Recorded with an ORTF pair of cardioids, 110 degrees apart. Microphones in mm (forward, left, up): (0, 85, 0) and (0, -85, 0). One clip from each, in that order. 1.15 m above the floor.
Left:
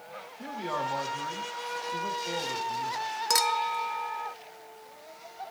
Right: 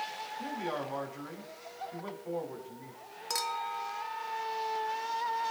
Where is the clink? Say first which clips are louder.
Left 7 dB; 40° left, 0.6 m.